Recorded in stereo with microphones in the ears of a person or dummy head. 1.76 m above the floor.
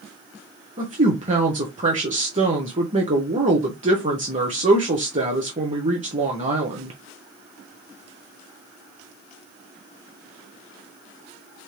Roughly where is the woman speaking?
Right.